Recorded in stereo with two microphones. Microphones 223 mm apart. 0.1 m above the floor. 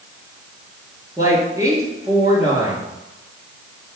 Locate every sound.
1.2 s a woman speaking: 15° right (ahead or behind), 1.8 m